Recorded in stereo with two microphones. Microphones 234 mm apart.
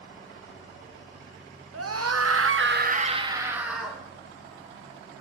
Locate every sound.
1.7 s a scream: 75° right (ahead or behind), 1.5 m; by 4.0 s centre (ahead or behind), 2 m